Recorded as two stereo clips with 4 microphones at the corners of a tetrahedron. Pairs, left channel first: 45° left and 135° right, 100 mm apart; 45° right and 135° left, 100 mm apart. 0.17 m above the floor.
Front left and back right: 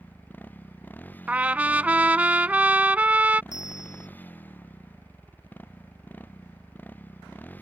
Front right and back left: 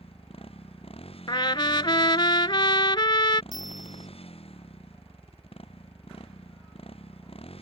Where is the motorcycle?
25° right.